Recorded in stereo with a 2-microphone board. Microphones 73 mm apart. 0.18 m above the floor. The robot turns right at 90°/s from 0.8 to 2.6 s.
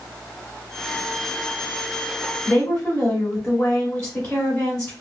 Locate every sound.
2.5 s a woman speaking: 20° left (ahead or behind), 1.3 m